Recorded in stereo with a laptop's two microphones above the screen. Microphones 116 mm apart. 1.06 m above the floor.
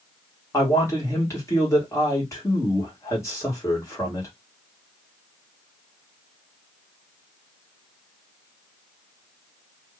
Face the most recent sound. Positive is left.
turn(degrees=25)  # may be behind; listen again after turning